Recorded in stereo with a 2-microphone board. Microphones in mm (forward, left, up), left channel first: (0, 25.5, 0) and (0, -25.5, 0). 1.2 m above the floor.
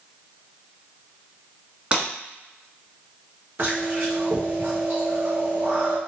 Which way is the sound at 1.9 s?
25° right (ahead or behind).